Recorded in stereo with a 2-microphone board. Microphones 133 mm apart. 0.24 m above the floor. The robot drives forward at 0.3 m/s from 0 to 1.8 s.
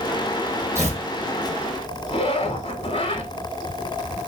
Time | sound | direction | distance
0.8 | tearing paper | 20° right (ahead or behind) | 1.7 m
2.1 | a zipper | 45° left (ahead or behind) | 0.7 m